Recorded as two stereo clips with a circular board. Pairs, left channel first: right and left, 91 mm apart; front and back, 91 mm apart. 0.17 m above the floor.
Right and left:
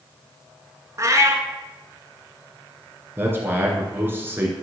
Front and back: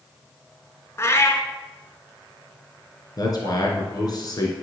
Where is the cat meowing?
50° left, 1.0 m.